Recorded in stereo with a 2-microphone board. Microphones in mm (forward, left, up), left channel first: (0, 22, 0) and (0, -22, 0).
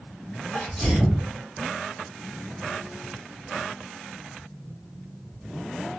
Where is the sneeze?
5° right (ahead or behind), 1.6 m.